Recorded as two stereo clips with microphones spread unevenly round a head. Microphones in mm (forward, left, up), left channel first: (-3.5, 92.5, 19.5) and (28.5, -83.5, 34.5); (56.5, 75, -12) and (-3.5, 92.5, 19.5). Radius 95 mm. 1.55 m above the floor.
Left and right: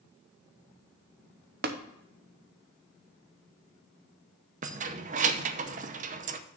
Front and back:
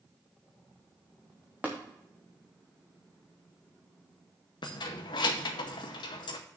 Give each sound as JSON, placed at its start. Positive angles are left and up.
{"t": 1.6, "sound": "tapping", "azimuth_deg": -120, "distance_m": 0.7}
{"t": 4.6, "sound": "keys jangling", "azimuth_deg": -50, "distance_m": 0.6}